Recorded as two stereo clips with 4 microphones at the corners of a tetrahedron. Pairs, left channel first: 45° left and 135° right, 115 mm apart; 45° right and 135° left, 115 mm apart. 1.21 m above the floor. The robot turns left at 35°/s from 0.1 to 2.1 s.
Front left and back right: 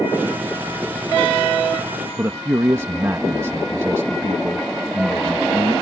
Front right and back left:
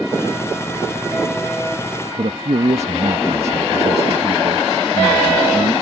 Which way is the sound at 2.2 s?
160° left.